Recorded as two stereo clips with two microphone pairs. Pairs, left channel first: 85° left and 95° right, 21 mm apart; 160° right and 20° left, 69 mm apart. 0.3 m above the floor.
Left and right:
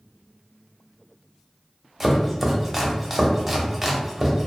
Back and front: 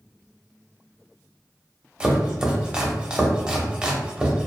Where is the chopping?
30° right, 0.5 m.